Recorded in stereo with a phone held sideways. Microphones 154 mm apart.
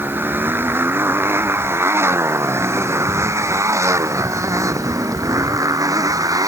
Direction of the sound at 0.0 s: 15° right (ahead or behind).